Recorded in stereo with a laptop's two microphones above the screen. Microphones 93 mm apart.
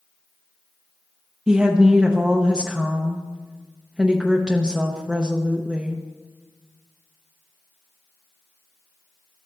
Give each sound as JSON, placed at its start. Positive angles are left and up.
{"t": 1.5, "sound": "a woman speaking", "side_deg": -10, "distance_m": 0.7}